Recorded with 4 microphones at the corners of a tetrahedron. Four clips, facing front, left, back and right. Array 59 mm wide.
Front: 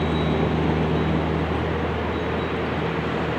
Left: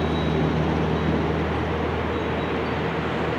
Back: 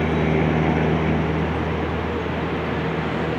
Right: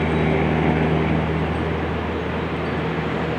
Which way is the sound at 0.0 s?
125° right.